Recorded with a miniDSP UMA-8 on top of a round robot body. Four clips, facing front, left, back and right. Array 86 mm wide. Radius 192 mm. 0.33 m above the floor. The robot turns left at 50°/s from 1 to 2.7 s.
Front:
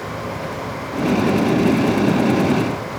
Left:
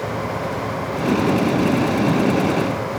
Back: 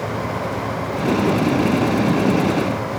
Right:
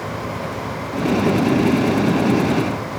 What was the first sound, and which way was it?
Only background noise.